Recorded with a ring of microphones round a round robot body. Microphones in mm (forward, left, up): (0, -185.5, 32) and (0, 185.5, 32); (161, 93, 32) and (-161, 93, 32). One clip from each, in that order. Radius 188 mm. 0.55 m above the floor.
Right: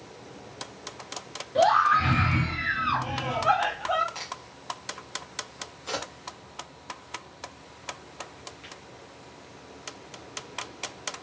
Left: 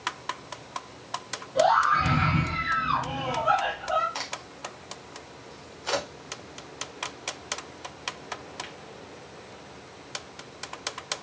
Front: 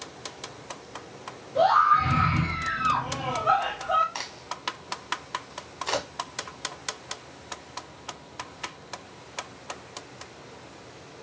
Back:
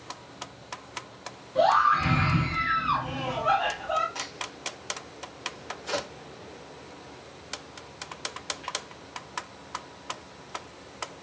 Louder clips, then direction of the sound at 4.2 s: Left 3 dB, even; 35° left.